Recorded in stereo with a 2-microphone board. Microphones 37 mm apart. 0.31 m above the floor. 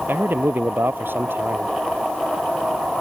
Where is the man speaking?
75° right (ahead or behind).